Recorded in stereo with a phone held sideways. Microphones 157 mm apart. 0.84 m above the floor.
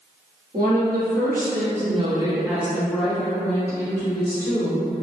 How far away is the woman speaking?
About 1.4 m.